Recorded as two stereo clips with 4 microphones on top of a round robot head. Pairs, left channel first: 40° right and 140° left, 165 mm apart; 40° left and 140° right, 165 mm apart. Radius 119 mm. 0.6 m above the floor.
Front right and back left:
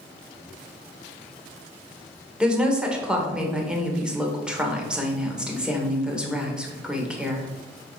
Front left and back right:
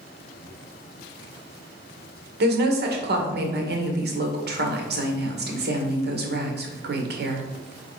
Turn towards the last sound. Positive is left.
turn(degrees=-135)